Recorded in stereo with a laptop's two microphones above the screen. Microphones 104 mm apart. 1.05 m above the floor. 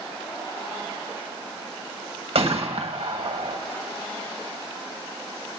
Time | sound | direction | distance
2.4 | a gunshot | 65° right (ahead or behind) | 1.4 m